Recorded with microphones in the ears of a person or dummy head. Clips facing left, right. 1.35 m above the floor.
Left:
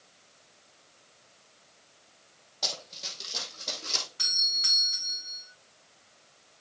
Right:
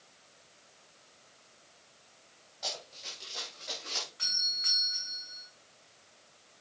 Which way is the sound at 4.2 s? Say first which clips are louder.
Left 3 dB; 55° left (ahead or behind).